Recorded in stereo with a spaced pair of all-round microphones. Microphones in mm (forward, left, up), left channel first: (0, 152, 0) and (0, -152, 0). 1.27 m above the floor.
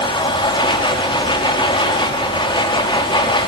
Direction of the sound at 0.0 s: 15° left (ahead or behind).